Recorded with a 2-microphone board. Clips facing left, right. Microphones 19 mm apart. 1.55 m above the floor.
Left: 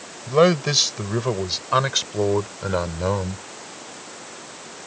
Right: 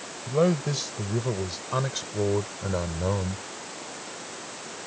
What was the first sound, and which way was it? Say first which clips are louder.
A man speaking: left 7 dB; 60° left (ahead or behind).